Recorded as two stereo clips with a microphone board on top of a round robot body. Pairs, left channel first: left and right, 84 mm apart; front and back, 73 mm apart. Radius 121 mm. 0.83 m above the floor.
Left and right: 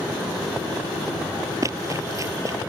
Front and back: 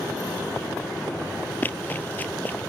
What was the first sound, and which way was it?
Running footsteps, 50° right.